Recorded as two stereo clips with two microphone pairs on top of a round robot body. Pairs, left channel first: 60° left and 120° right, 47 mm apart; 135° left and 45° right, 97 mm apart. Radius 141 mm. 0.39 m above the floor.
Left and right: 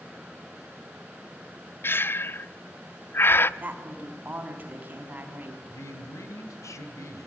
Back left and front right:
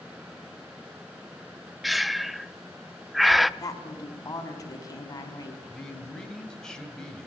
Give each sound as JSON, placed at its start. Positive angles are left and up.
{"t": 1.8, "sound": "breathing", "azimuth_deg": 55, "distance_m": 0.7}
{"t": 3.6, "sound": "a woman speaking", "azimuth_deg": -170, "distance_m": 4.0}
{"t": 5.7, "sound": "a man speaking", "azimuth_deg": 55, "distance_m": 3.0}